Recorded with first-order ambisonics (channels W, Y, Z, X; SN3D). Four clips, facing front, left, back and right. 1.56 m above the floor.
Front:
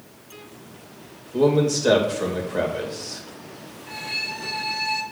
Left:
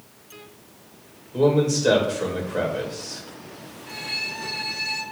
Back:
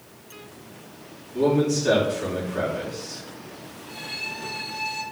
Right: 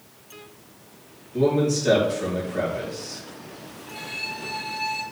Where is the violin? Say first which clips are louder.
Left 3 dB, front 4 dB; 50° left, 2.5 m.